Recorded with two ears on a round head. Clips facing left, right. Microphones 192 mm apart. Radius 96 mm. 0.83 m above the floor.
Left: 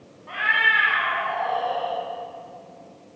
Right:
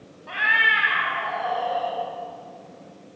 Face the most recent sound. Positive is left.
turn(degrees=-20)  # may be behind; listen again after turning